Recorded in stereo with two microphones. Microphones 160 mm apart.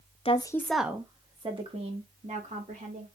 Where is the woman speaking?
40° left (ahead or behind), 0.6 m; by 3.1 s 50° right (ahead or behind), 2.5 m.